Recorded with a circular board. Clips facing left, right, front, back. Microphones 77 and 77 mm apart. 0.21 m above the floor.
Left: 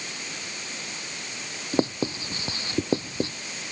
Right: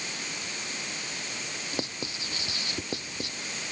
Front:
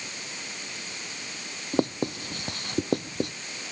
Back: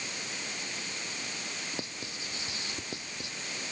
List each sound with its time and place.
1.7 s writing: 35° left